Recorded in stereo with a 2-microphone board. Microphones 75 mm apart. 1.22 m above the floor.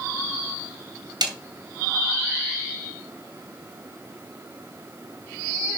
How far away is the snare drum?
About 2.5 m.